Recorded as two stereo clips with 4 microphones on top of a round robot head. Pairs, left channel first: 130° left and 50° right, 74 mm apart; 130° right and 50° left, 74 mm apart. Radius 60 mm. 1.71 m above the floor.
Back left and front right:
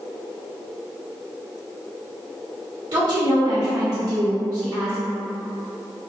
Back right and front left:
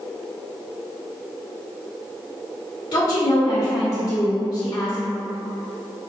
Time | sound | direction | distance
2.9 | a woman speaking | 90° right | 2.0 m